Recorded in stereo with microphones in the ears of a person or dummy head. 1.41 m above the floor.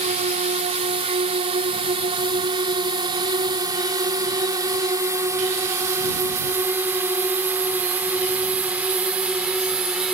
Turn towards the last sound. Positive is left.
turn(degrees=0)  # may be behind; listen again after turning